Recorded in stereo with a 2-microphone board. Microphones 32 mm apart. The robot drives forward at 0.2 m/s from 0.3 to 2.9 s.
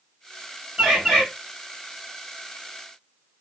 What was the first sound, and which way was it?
A bird, 45° right (ahead or behind).